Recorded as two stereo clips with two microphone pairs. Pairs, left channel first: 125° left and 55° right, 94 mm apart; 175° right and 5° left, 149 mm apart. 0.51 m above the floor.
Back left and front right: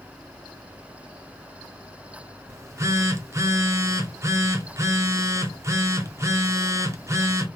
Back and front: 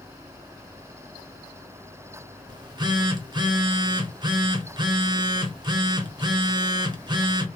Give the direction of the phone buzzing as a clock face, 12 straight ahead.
1 o'clock.